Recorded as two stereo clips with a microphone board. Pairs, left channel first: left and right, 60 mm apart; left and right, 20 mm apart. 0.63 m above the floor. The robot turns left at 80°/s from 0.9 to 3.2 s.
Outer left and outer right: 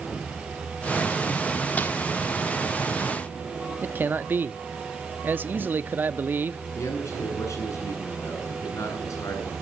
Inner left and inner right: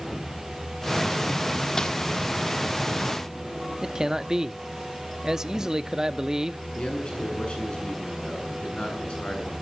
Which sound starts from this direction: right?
A man speaking, at 3.8 s.